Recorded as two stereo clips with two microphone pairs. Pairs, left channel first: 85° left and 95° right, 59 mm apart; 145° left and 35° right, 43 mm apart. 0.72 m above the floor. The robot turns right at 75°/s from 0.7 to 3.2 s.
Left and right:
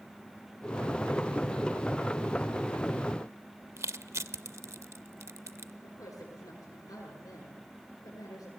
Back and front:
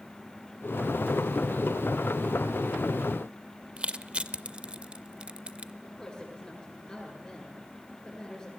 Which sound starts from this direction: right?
Crushing, at 3.8 s.